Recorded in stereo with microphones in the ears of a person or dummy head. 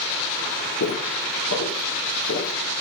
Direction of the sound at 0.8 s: 60° left (ahead or behind).